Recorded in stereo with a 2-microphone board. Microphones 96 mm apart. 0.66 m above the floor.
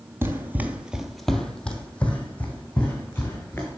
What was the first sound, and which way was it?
Running footsteps, 25° right (ahead or behind).